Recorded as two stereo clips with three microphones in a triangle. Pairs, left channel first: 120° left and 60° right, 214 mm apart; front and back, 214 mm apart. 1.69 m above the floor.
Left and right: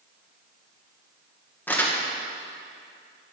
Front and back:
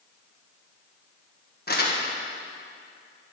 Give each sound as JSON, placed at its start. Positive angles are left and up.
{"t": 1.7, "sound": "crumpling", "azimuth_deg": 40, "distance_m": 1.5}